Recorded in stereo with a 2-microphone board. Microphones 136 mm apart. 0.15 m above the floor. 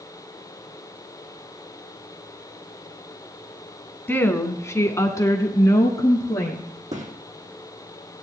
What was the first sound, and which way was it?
A woman speaking, 15° left (ahead or behind).